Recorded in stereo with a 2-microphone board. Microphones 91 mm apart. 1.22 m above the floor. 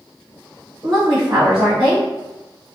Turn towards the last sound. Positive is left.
turn(degrees=-40)  # may be behind; listen again after turning